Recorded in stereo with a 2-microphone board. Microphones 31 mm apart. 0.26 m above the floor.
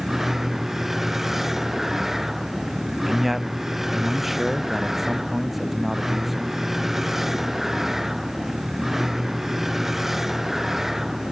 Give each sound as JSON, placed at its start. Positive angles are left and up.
{"t": 0.0, "sound": "a vehicle", "side_deg": -10}
{"t": 3.1, "sound": "a man speaking", "side_deg": -5}